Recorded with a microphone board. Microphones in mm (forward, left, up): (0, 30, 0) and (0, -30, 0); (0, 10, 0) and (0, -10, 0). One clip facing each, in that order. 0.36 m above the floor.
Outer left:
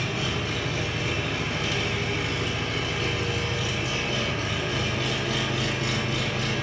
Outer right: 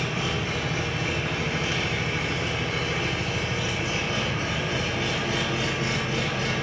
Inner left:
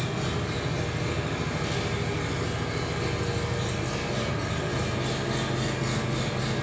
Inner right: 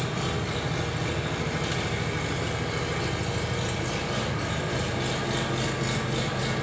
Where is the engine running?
35° right (ahead or behind), 0.9 m.